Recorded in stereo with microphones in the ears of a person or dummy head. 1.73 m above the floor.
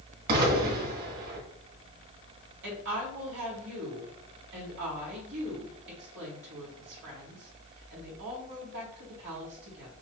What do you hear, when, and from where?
0.3 s an explosion: 50° right (ahead or behind), 1.7 m
2.6 s a woman speaking: 70° right (ahead or behind), 2 m